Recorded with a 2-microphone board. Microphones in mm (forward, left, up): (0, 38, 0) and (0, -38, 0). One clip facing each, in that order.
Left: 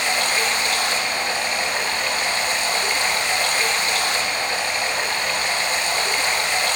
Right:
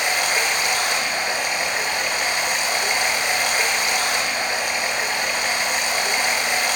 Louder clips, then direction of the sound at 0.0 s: Even; 15° right (ahead or behind).